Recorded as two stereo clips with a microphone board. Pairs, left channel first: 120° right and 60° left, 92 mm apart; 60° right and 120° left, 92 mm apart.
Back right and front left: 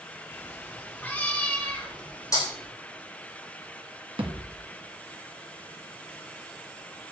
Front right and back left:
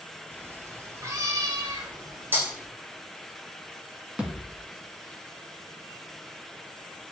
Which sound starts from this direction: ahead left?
A thud, at 4.2 s.